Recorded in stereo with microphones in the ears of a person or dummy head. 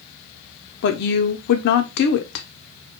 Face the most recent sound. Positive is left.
turn(degrees=65)  # may be behind; listen again after turning